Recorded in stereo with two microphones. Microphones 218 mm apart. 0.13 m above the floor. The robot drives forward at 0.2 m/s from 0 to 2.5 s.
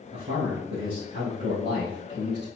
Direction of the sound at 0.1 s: 30° right (ahead or behind).